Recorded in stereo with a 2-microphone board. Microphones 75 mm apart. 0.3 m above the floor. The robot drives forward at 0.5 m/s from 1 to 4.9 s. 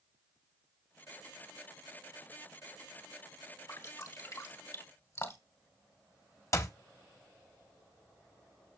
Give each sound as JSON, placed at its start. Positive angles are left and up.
{"t": 3.7, "sound": "dripping", "side_deg": 40, "distance_m": 1.9}
{"t": 6.5, "sound": "a clap", "side_deg": 40, "distance_m": 1.1}